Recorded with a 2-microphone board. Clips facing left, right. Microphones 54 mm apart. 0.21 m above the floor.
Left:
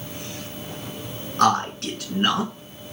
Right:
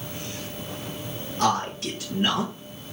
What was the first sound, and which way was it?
A man speaking, 60° left (ahead or behind).